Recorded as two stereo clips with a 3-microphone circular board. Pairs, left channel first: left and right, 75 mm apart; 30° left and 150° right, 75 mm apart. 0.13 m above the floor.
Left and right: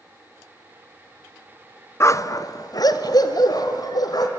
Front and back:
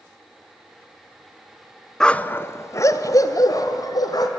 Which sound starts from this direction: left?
A dog barking, at 2.0 s.